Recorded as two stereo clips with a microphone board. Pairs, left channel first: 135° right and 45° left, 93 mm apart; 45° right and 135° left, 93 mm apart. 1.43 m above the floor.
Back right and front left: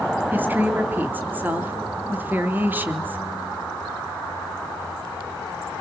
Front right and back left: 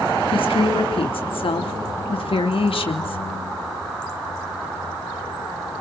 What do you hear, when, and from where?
0.3 s a woman speaking: 25° right, 3 m